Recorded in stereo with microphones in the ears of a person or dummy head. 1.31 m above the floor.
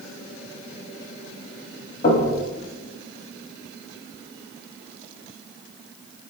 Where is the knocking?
45° left (ahead or behind), 1.2 m.